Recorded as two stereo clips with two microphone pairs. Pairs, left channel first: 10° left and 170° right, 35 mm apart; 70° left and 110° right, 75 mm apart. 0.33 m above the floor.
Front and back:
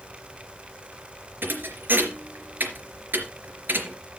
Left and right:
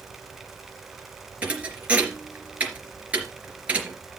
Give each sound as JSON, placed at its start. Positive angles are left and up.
{"t": 1.4, "sound": "a thud", "azimuth_deg": 175, "distance_m": 3.0}